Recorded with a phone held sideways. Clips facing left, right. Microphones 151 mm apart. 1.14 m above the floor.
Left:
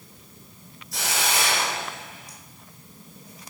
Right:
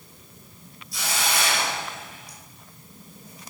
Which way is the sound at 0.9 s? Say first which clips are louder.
Left 1 dB; 80° left.